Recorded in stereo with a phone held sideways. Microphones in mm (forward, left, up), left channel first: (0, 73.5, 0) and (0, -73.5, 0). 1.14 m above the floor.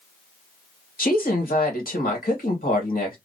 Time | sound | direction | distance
1.0 | a woman speaking | 70° left (ahead or behind) | 1.7 m